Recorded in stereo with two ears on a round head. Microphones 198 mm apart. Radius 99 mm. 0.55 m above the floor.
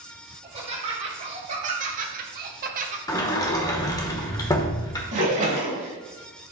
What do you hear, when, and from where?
0.4 s laughter: 30° right (ahead or behind), 2.5 m
3.1 s a sliding door: 15° left (ahead or behind), 1.0 m
5.1 s a splash: 35° right (ahead or behind), 2 m